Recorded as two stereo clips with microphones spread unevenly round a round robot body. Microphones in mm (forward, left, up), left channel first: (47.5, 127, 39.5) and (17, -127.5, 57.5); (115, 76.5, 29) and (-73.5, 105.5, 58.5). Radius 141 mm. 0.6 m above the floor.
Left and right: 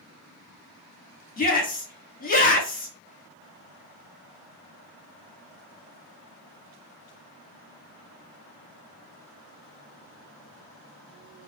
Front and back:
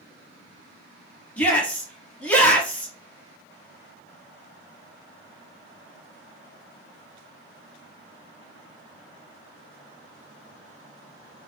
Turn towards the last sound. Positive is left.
turn(degrees=60)